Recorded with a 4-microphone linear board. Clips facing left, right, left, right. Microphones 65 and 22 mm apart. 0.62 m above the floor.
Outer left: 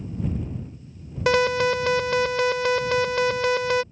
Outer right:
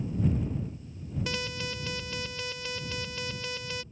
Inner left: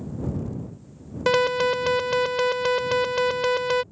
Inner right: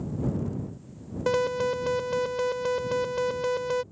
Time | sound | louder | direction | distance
1.3 | an alarm | outer left 19 dB, inner left 5 dB | 70° left (ahead or behind) | ?